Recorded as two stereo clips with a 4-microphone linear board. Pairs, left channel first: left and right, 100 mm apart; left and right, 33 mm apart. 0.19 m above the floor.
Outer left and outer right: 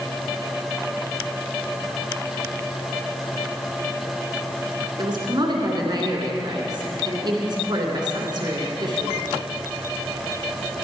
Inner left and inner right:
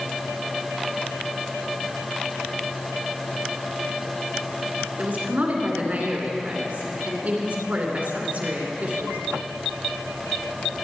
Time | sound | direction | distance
5.0 | a woman speaking | 45° right (ahead or behind) | 2.5 m